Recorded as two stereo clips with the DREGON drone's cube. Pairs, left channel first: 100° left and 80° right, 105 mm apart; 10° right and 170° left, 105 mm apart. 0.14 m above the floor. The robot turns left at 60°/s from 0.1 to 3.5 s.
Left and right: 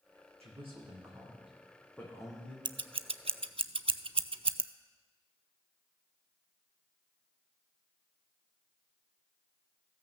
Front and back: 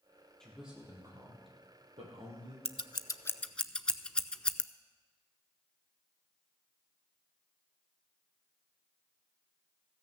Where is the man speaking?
95° right, 4.5 m; by 2.5 s 140° left, 4.5 m.